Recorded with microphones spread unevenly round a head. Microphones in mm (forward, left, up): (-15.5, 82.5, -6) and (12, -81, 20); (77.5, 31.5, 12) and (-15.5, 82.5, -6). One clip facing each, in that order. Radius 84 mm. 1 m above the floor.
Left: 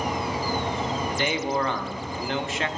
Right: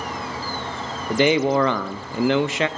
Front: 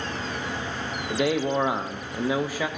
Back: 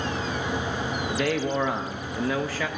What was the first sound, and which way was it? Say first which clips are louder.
A man speaking: right 13 dB, front 3 dB; 115° right.